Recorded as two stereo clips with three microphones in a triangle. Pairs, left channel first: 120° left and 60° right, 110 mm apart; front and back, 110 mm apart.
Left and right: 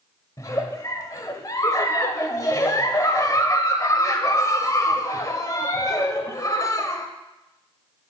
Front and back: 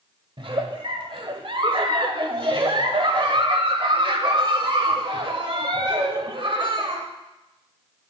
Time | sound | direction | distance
0.4 | a giggle | 170° left | 1.0 m